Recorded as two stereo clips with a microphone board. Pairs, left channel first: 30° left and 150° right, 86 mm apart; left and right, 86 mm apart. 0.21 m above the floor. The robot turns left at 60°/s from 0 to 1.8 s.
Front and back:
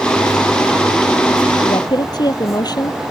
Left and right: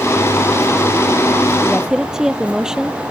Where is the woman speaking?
5° left; by 3.0 s 5° right.